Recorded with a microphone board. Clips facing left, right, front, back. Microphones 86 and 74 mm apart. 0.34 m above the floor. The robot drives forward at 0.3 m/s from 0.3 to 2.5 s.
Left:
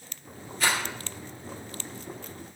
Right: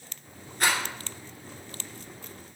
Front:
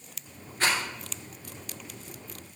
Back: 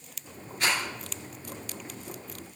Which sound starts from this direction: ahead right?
A rattle, at 0.6 s.